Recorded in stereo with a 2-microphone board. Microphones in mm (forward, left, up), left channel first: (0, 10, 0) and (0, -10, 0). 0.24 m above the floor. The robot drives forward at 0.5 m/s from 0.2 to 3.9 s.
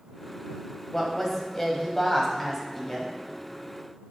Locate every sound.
0.9 s a woman speaking: 20° left (ahead or behind), 1.1 m; by 3.1 s 15° left (ahead or behind), 1.5 m